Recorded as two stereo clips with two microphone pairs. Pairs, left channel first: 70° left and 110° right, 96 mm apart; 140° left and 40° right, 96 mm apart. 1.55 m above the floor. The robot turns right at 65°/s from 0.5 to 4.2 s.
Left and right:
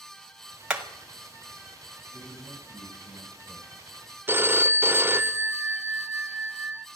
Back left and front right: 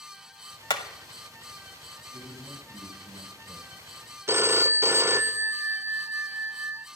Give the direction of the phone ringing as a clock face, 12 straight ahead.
2 o'clock.